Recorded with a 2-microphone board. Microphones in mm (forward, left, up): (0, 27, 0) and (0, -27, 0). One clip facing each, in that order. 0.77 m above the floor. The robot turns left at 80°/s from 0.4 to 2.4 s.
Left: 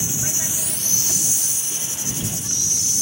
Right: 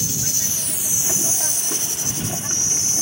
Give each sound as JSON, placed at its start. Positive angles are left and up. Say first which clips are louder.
{"t": 0.0, "sound": "an insect", "louder": "even", "azimuth_deg": 25}